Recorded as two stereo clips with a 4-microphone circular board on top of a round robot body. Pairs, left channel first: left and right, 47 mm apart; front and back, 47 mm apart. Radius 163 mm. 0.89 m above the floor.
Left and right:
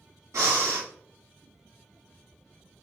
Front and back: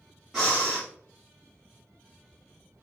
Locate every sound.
0.3 s breathing: 100° right, 1.3 m